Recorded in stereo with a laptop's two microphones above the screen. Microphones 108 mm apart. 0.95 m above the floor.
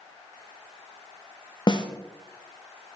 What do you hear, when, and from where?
1.7 s a snare drum: 40° left (ahead or behind), 0.9 m